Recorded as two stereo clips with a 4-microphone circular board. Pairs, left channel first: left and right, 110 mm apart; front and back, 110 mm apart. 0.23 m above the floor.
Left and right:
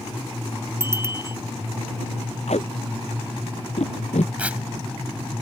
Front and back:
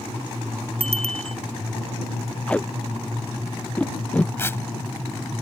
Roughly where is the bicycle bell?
Behind right.